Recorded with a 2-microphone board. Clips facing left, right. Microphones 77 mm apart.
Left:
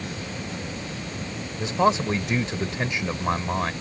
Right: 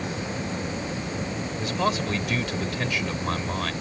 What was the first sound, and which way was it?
A man speaking, 25° left (ahead or behind).